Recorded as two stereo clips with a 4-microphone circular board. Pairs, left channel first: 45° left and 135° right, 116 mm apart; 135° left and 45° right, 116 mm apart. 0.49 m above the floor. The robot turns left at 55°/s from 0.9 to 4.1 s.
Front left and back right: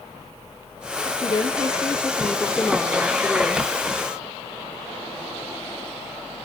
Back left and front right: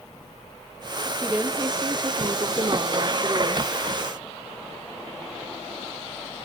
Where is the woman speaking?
30° left, 0.9 m; by 3.7 s 105° right, 0.9 m.